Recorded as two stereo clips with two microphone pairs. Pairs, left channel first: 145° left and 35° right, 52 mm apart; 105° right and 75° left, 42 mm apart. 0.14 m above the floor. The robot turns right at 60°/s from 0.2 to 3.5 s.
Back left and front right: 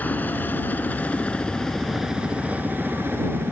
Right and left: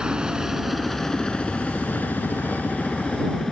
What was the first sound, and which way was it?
A helicopter, 130° left.